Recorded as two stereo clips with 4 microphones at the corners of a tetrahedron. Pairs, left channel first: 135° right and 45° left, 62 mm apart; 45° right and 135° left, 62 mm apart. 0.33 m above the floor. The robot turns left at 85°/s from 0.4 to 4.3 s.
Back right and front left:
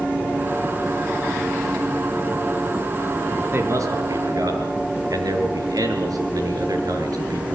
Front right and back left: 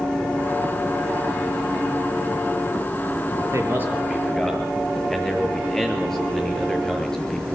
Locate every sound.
3.5 s a man speaking: 105° left, 5.5 m; by 7.4 s 35° left, 5.5 m